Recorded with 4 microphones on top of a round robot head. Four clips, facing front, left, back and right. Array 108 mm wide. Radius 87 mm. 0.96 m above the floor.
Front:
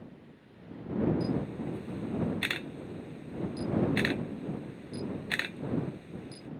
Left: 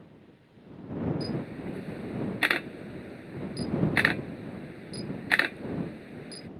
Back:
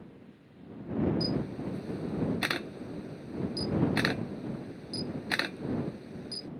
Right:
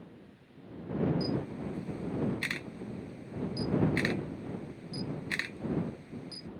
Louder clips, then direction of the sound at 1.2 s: Even, even; 115° left.